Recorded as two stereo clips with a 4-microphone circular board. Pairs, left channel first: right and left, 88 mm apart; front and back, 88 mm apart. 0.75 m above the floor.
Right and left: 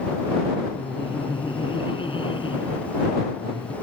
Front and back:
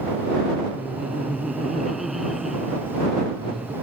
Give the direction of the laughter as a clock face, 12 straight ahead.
3 o'clock.